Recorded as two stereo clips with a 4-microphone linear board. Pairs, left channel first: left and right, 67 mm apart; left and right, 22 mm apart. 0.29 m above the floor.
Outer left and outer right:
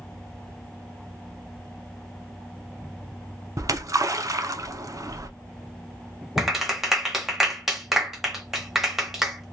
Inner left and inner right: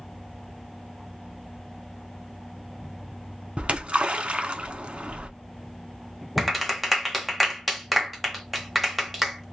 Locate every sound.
3.6 s a splash: 55° right (ahead or behind), 0.6 m
6.4 s a clap: 5° right (ahead or behind), 0.9 m